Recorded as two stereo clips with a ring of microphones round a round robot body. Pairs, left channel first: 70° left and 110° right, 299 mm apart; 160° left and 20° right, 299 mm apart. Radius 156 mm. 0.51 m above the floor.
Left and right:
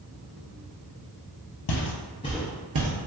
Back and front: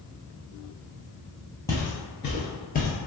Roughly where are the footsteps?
Left.